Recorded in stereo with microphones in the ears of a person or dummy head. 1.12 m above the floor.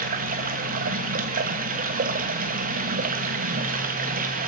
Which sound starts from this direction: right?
Running water, at 0.0 s.